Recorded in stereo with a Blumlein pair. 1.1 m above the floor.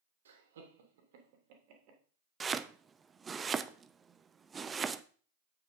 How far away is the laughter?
About 2.5 m.